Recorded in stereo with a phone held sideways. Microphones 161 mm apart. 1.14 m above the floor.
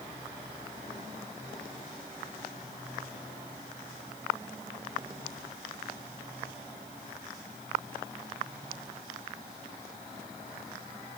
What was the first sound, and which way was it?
Only background noise.